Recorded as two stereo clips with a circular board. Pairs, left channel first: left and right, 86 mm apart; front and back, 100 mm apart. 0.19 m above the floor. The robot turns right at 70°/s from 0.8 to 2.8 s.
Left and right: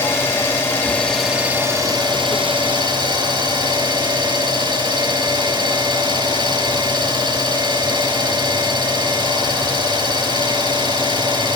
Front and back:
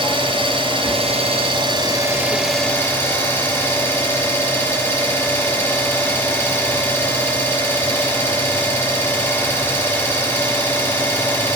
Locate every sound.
0.0 s an engine running: 150° left, 3.5 m; by 11.6 s 70° right, 3.5 m